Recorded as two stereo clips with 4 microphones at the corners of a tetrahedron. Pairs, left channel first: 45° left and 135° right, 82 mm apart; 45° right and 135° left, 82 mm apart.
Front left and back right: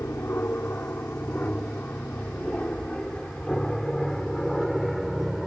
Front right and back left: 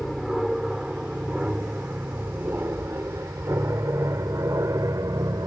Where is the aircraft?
50° left; by 5.5 s 135° left.